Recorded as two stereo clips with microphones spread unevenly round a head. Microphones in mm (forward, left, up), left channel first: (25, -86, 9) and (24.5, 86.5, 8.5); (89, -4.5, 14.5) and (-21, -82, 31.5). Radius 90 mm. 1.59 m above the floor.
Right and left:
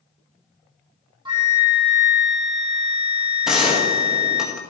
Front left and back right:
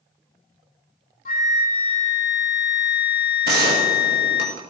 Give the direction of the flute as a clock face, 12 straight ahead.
11 o'clock.